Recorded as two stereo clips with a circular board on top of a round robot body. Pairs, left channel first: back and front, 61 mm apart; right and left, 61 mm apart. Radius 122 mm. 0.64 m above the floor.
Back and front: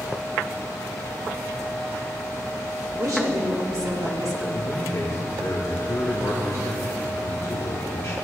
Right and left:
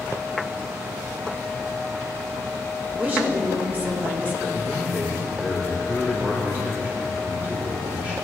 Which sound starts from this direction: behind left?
A man speaking, at 4.5 s.